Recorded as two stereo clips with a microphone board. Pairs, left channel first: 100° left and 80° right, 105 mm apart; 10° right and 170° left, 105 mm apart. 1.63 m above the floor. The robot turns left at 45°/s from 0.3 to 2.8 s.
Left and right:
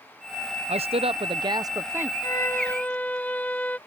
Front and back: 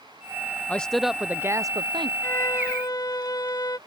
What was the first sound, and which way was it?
A man speaking, 85° right.